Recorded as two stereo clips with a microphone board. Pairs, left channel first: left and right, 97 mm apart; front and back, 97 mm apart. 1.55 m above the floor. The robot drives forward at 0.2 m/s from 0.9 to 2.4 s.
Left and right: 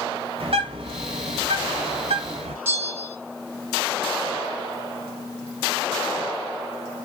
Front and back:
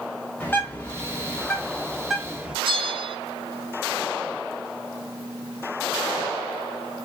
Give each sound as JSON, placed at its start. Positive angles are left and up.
{"t": 0.4, "sound": "a bird", "azimuth_deg": -70, "distance_m": 0.6}
{"t": 2.6, "sound": "a bell", "azimuth_deg": -155, "distance_m": 0.7}